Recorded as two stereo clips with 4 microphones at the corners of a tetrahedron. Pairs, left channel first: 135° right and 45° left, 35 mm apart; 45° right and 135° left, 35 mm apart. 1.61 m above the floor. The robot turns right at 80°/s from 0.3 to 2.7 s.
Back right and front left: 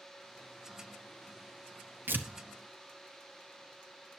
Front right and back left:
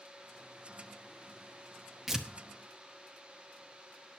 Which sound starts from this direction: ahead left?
Tearing paper, at 2.1 s.